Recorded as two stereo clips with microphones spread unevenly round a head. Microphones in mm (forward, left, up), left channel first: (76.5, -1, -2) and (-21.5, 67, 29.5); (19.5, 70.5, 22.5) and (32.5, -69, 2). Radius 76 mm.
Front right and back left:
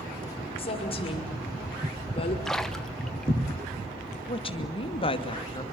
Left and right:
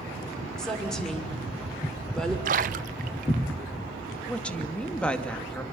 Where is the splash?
130° right, 0.7 m.